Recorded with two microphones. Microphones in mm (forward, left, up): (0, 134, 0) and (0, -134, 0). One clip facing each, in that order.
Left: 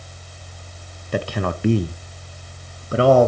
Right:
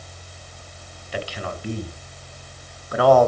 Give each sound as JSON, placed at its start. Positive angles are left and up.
{"t": 1.1, "sound": "a man speaking", "side_deg": 50, "distance_m": 0.8}